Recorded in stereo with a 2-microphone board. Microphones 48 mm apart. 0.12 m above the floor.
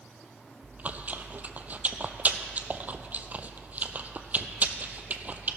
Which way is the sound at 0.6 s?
35° right (ahead or behind).